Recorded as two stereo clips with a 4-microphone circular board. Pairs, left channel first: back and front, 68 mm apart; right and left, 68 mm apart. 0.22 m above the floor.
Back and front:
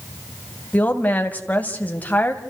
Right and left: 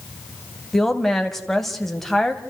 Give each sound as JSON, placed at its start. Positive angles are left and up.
{"t": 0.7, "sound": "a woman speaking", "azimuth_deg": -175, "distance_m": 1.7}